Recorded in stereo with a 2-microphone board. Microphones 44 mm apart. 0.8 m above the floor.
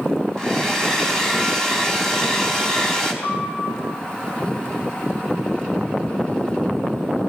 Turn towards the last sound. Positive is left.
turn(degrees=5)  # may be behind; listen again after turning